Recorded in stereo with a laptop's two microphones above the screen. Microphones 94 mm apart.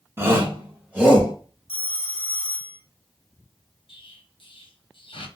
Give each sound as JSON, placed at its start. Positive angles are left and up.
{"t": 0.2, "sound": "a shout", "side_deg": -25, "distance_m": 1.0}
{"t": 1.7, "sound": "a phone ringing", "side_deg": 80, "distance_m": 0.9}
{"t": 3.9, "sound": "an explosion", "side_deg": 70, "distance_m": 0.8}